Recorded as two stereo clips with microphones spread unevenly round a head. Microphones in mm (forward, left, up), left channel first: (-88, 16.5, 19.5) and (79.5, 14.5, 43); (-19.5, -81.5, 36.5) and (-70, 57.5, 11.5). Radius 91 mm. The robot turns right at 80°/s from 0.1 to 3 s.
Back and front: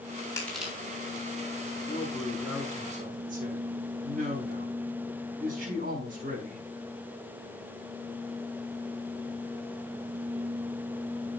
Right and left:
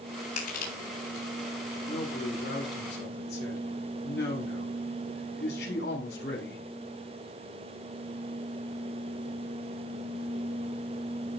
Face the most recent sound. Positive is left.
turn(degrees=-40)